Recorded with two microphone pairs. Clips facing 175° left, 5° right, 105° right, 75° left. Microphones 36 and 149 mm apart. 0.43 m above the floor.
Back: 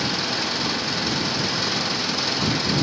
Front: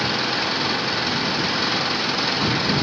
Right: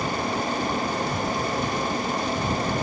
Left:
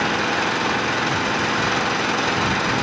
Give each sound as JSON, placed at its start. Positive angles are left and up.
{"t": 0.0, "sound": "an engine running", "azimuth_deg": 65}